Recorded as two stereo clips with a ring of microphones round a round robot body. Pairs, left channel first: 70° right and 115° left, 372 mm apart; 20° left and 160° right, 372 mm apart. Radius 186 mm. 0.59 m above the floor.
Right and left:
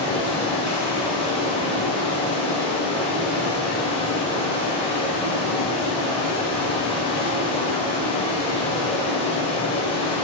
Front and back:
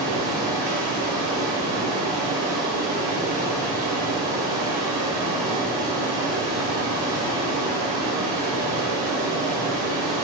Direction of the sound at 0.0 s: 140° right.